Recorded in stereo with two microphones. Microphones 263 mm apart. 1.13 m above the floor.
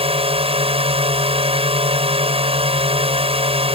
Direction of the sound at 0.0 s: 20° right (ahead or behind).